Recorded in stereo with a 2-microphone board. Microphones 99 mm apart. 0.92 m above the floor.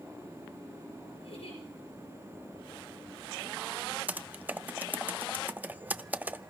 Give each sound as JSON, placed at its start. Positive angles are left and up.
{"t": 1.2, "sound": "a giggle", "side_deg": 85, "distance_m": 6.0}
{"t": 4.1, "sound": "typing on a keyboard", "side_deg": -15, "distance_m": 0.5}